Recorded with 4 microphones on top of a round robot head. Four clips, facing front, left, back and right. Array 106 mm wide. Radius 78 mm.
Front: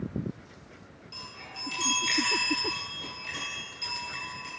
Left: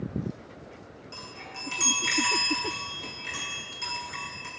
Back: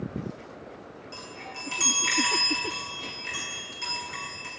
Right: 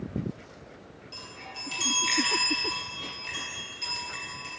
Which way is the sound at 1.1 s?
135° left.